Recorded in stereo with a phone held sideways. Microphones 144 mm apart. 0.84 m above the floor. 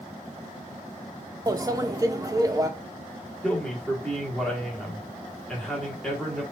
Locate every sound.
1.5 s a microwave: 25° right (ahead or behind), 0.5 m
3.4 s a man speaking: 5° left (ahead or behind), 1.6 m